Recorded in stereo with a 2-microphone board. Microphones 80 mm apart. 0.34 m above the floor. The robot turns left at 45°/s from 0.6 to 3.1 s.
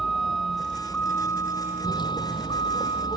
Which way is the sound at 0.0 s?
Straight behind.